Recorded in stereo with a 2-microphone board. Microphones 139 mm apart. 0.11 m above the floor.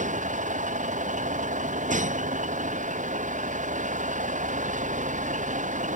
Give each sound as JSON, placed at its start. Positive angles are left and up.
{"t": 0.0, "sound": "a vehicle", "side_deg": -55}